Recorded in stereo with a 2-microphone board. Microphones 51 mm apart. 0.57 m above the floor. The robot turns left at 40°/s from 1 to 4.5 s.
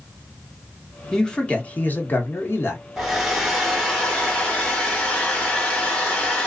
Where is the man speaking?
165° left, 0.9 m; by 2.8 s 95° left, 0.9 m.